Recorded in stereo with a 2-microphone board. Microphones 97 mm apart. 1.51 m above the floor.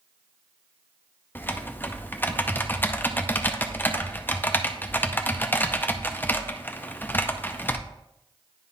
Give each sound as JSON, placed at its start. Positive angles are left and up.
{"t": 1.4, "sound": "typing on a keyboard", "side_deg": 20, "distance_m": 0.6}